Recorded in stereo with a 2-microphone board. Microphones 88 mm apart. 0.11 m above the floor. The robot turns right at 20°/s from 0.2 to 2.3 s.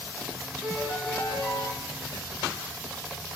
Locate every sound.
0.6 s a piano: 20° left (ahead or behind), 1.0 m